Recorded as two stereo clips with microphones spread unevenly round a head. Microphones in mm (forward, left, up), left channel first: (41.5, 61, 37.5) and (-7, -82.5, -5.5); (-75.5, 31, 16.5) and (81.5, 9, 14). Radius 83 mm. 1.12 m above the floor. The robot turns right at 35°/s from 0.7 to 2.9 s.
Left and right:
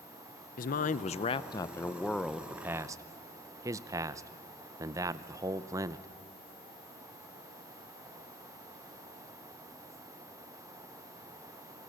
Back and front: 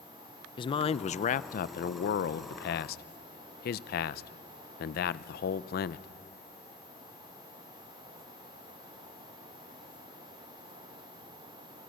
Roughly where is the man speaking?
Behind left.